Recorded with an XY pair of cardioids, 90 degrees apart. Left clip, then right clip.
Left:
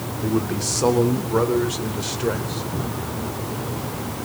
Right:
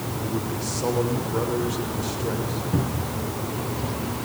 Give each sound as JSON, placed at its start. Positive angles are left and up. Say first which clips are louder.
{"t": 0.2, "sound": "a man speaking", "louder": "left 8 dB", "azimuth_deg": 60, "distance_m": 3.0}
{"t": 2.7, "sound": "a cupboard door", "louder": "even", "azimuth_deg": -50, "distance_m": 5.5}